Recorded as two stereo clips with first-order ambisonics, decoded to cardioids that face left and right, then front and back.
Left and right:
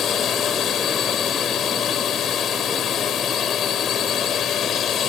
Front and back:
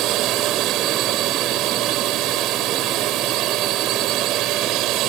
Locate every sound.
0.0 s a drone: 145° left